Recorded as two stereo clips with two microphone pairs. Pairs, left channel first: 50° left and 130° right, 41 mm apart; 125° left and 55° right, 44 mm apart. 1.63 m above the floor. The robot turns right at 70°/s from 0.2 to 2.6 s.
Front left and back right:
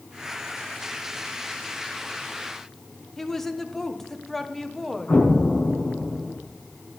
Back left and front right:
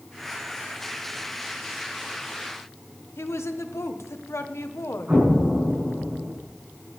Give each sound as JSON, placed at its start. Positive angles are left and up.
{"t": 3.2, "sound": "a woman speaking", "azimuth_deg": 135, "distance_m": 1.3}
{"t": 5.1, "sound": "an explosion", "azimuth_deg": 5, "distance_m": 8.0}